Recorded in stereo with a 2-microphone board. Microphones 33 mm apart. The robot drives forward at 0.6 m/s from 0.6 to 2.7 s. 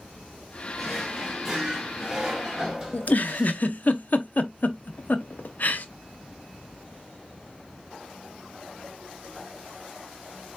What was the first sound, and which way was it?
A drawer, 5° right (ahead or behind).